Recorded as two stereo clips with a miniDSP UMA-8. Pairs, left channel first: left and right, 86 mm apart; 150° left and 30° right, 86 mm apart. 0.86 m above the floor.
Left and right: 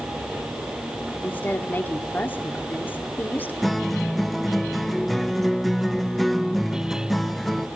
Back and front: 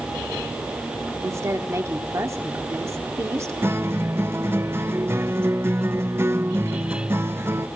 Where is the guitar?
Straight ahead, 0.7 m.